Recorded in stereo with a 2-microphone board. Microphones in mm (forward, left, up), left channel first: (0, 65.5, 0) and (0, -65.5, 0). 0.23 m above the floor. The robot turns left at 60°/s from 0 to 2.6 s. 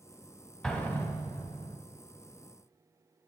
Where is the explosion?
175° left, 1.0 m; by 1.8 s 105° left, 1.0 m.